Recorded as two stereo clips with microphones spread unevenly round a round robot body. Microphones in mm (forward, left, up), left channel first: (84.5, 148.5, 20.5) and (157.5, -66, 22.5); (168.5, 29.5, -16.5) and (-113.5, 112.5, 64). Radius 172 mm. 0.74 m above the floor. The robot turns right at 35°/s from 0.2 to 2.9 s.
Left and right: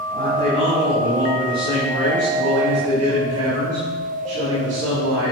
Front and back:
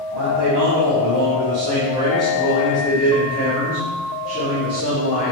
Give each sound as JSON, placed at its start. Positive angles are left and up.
{"t": 0.1, "sound": "a man speaking", "azimuth_deg": -170, "distance_m": 5.5}